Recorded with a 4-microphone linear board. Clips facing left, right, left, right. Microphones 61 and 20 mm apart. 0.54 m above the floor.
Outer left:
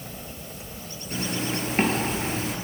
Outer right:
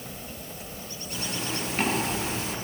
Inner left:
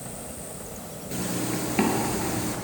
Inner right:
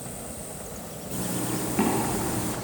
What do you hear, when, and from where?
1.1 s a zipper: 35° left (ahead or behind), 2.5 m